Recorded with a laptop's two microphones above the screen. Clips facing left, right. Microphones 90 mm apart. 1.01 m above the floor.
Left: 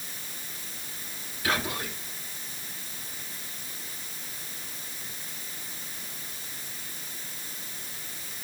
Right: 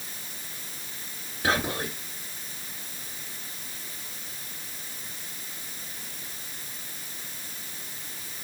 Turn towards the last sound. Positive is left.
turn(degrees=-50)  # may be behind; listen again after turning